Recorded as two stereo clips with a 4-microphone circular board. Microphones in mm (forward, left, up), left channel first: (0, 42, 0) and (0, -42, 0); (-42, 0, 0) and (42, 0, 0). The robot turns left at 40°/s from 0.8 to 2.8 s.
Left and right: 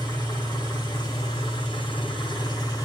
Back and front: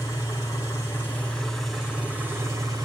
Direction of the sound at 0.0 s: 125° left.